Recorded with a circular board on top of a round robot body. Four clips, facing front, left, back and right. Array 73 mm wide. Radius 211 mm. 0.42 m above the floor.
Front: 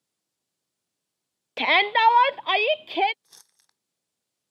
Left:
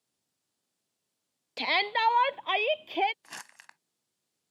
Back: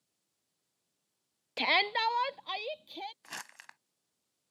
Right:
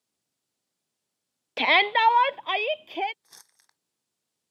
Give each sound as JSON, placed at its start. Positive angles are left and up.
{"t": 1.6, "sound": "a shout", "azimuth_deg": -55}
{"t": 3.2, "sound": "crumpling", "azimuth_deg": 140}